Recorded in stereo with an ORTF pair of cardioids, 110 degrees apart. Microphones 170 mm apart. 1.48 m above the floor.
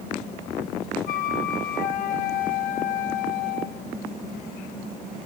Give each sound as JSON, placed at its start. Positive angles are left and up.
{"t": 1.1, "sound": "a flute", "azimuth_deg": 55, "distance_m": 2.0}